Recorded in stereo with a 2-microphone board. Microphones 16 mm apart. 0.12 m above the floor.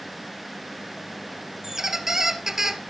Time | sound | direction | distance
1.6 | a squeak | 30° right (ahead or behind) | 1.0 m